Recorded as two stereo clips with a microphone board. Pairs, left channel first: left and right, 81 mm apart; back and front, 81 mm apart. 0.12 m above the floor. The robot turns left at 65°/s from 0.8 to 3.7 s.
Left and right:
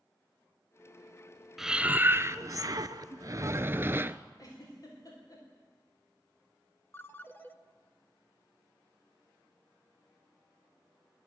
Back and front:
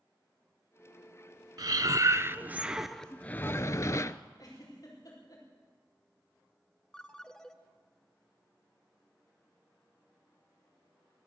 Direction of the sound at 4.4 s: 135° left.